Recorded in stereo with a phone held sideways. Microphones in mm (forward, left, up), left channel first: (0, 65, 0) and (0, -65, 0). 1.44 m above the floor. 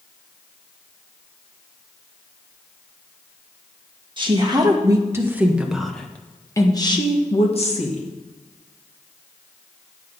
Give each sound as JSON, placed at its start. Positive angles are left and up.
{"t": 4.2, "sound": "a woman speaking", "side_deg": -35, "distance_m": 2.0}